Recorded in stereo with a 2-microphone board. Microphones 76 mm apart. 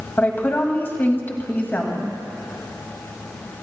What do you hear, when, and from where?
0.2 s a woman speaking: 30° left (ahead or behind), 2 m